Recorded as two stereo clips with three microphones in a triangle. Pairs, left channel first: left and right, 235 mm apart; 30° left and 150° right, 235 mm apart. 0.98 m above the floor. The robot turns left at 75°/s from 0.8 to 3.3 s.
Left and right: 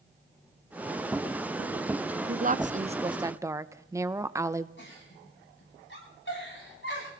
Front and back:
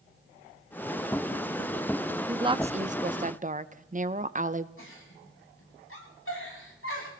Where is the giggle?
55° left, 7 m.